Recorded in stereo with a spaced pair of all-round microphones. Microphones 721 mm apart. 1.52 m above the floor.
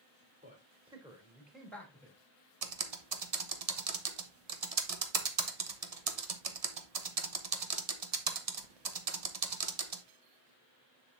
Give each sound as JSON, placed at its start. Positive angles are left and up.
{"t": 0.4, "sound": "a man speaking", "side_deg": -10, "distance_m": 3.0}
{"t": 2.6, "sound": "typing on a keyboard", "side_deg": -60, "distance_m": 1.0}